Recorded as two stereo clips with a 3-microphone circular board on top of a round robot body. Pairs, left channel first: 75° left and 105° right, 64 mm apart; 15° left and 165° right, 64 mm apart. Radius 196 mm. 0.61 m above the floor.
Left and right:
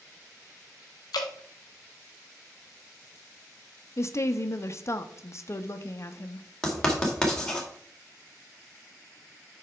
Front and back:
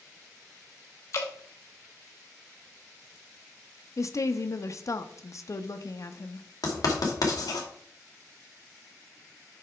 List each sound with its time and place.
1.1 s dripping: 55° left, 0.7 m
4.0 s a woman speaking: 40° left, 1.0 m
6.6 s writing: 5° right, 2 m